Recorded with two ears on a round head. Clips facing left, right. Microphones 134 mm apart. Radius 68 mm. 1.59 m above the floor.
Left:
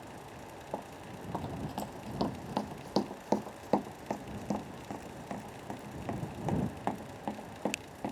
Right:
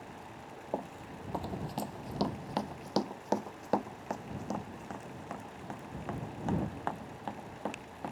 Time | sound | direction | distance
0.7 | running footsteps | 20° right (ahead or behind) | ?